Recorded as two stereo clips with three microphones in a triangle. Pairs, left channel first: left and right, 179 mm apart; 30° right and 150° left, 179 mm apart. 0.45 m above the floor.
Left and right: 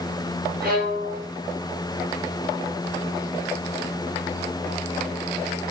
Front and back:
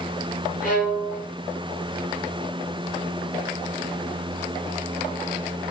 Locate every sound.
0.6 s a violin: 70° right, 3 m